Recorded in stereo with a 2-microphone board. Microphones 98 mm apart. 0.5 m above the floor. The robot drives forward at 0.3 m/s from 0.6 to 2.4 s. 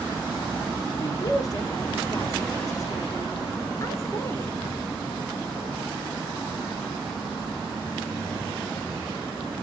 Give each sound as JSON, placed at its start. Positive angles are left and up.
{"t": 1.0, "sound": "a woman speaking", "side_deg": 40, "distance_m": 1.0}